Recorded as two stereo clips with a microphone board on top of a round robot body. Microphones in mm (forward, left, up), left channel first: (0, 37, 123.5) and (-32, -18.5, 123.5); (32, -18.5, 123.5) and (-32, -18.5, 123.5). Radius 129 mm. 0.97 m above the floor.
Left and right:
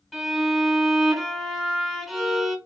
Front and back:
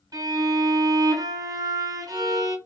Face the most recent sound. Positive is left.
turn(degrees=150)